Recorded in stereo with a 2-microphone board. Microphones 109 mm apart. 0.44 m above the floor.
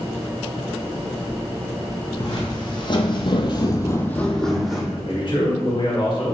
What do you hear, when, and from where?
2.2 s footsteps: 40° left (ahead or behind), 1.3 m; by 4.8 s 5° right (ahead or behind), 1.0 m
4.9 s a man speaking: 50° left (ahead or behind), 1.6 m